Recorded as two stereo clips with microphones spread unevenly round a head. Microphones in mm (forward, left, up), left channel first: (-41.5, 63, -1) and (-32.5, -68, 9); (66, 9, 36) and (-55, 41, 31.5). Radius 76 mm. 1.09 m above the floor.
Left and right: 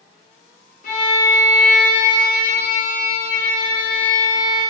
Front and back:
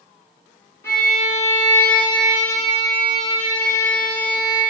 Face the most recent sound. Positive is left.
turn(degrees=55)